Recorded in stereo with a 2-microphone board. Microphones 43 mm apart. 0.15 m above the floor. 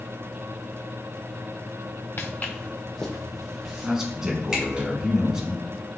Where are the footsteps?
50° left (ahead or behind), 0.8 m; by 4.8 s 10° right (ahead or behind), 3 m.